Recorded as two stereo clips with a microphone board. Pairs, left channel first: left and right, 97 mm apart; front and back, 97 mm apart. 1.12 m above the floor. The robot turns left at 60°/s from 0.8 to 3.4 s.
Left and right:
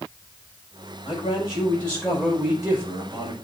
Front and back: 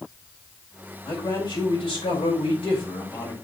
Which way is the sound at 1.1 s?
65° left.